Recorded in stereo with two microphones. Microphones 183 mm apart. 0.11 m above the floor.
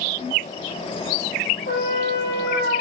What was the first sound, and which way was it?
A trumpet, 70° left (ahead or behind).